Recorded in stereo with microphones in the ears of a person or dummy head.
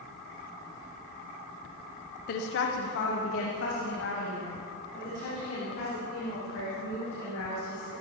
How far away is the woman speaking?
About 0.8 m.